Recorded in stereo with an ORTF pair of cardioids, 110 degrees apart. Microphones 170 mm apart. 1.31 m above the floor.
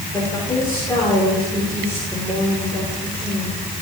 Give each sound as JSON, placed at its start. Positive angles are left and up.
{"t": 0.1, "sound": "a woman speaking", "azimuth_deg": 15, "distance_m": 5.0}